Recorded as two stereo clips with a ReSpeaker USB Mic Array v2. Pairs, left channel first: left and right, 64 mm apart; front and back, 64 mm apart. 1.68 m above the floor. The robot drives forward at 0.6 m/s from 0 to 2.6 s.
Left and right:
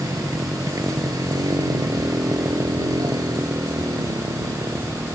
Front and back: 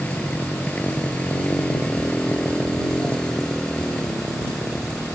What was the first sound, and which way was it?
A motorcycle, 70° right.